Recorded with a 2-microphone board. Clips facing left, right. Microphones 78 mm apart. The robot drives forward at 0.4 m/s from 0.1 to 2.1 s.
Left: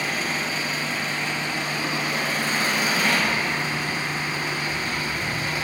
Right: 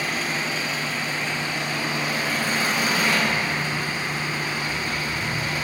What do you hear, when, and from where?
0.0 s an engine running: centre (ahead or behind), 1.6 m